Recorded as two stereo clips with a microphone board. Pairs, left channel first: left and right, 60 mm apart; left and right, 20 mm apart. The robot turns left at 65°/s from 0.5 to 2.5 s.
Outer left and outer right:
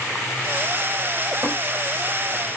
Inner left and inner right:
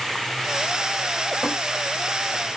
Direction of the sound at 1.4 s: 45° right (ahead or behind).